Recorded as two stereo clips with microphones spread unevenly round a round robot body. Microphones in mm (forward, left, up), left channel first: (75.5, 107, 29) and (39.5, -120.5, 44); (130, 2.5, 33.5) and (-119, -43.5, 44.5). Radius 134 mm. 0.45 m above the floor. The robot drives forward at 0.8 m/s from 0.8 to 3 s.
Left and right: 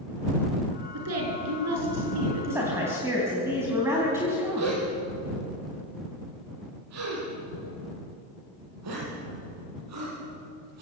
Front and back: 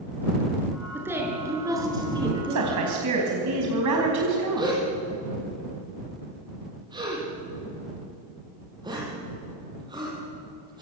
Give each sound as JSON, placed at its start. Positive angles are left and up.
{"t": 0.9, "sound": "a woman speaking", "azimuth_deg": -85, "distance_m": 6.5}
{"t": 2.5, "sound": "a woman speaking", "azimuth_deg": 180, "distance_m": 4.0}
{"t": 4.6, "sound": "a gasp", "azimuth_deg": -95, "distance_m": 9.5}